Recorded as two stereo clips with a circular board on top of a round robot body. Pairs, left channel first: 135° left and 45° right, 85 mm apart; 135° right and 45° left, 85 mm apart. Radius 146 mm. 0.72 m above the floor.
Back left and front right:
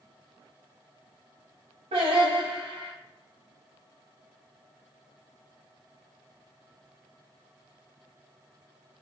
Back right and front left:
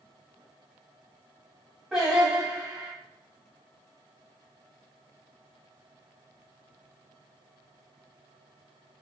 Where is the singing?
40° right, 0.9 m.